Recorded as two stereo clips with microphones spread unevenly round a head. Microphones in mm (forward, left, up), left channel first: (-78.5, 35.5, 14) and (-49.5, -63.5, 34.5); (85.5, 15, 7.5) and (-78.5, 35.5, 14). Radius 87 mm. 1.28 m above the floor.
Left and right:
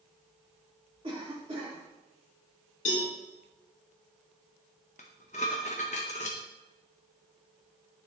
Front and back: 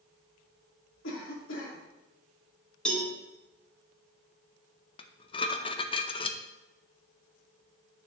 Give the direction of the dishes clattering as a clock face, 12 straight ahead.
10 o'clock.